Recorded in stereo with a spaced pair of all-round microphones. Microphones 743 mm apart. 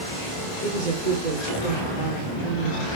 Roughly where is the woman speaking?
Right.